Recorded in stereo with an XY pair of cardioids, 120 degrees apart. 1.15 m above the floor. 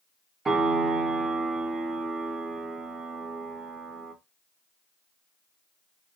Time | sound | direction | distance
0.5 | a piano | 30° right | 1.1 m